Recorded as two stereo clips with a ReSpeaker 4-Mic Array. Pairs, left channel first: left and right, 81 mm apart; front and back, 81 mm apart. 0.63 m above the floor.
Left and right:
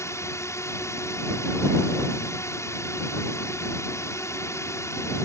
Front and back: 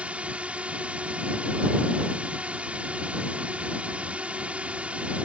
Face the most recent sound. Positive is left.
turn(degrees=115)